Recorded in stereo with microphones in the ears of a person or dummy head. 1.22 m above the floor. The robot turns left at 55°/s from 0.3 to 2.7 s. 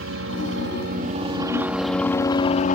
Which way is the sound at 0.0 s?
95° right.